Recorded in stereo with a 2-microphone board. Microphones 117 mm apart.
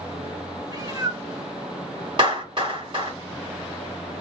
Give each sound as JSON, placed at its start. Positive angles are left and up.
{"t": 0.7, "sound": "a cat meowing", "side_deg": -35, "distance_m": 0.8}
{"t": 2.2, "sound": "a clap", "side_deg": -45, "distance_m": 2.0}